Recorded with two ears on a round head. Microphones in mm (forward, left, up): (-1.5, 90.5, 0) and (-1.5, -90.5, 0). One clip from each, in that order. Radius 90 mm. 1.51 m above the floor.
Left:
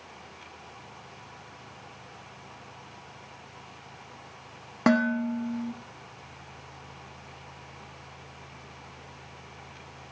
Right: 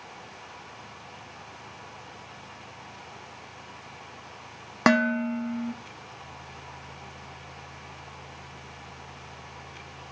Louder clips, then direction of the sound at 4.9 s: Right 3 dB; 40° right (ahead or behind).